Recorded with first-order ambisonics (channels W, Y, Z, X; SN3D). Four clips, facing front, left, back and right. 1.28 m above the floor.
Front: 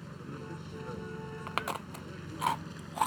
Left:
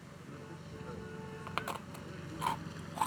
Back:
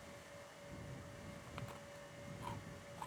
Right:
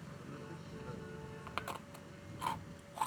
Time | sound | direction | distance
0.0 | a vehicle | 5° right | ?
1.5 | chewing | 10° left | ?